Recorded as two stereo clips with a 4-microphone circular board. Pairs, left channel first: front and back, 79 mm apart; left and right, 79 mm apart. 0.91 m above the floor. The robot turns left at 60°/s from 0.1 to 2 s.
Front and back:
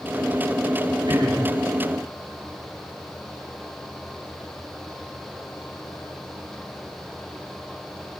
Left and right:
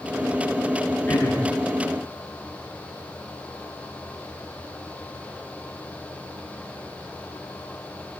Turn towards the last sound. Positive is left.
turn(degrees=100)